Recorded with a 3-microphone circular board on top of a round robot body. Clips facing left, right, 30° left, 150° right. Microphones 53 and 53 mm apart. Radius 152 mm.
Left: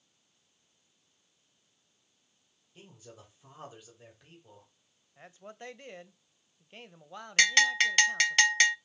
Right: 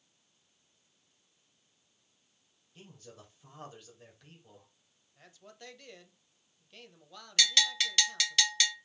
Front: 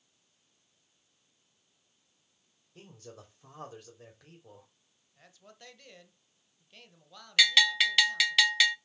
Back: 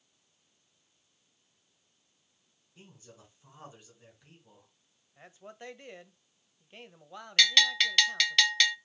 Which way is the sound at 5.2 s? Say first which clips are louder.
Left 6 dB, back 7 dB; 150° left.